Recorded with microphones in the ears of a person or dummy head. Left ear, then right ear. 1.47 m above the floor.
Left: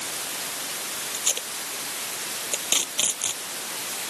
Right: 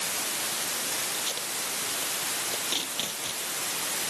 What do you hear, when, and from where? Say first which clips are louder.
1.1 s tape being pulled: left 3 dB; 35° left (ahead or behind)